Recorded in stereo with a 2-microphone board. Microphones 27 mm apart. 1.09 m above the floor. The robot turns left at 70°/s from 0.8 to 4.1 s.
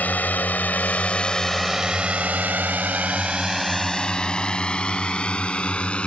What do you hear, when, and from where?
0.0 s a drone: 80° left; by 6.1 s 40° left (ahead or behind)